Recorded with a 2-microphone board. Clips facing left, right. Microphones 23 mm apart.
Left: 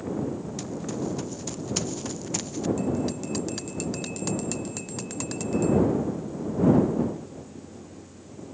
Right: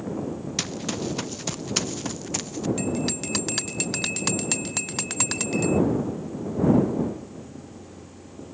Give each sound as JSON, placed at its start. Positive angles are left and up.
{"t": 0.6, "sound": "running footsteps", "side_deg": -60}
{"t": 2.8, "sound": "a bell", "side_deg": -45}